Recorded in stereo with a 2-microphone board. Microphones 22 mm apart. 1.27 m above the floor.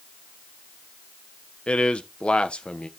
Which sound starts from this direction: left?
A man speaking, at 1.7 s.